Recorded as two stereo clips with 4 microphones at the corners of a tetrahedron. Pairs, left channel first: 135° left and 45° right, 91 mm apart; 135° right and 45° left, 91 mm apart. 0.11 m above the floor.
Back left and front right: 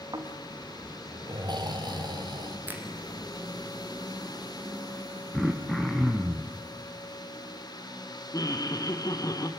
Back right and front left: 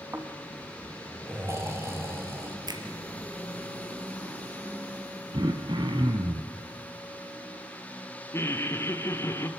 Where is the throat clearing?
50° left, 3 m.